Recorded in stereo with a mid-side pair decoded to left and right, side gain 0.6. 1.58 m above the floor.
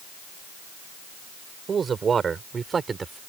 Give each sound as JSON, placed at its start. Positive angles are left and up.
{"t": 1.7, "sound": "a man speaking", "azimuth_deg": -35}